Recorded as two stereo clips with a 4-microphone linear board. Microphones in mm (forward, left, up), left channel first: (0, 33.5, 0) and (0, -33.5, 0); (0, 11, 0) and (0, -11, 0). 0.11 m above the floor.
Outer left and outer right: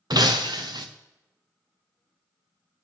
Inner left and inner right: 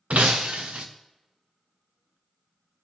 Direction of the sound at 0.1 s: 75° right (ahead or behind).